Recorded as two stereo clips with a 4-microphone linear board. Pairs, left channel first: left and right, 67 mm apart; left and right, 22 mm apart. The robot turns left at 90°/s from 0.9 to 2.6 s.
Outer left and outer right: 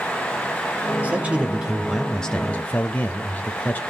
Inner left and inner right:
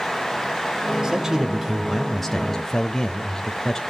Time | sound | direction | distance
1.0 | a man speaking | 25° right (ahead or behind) | 0.9 m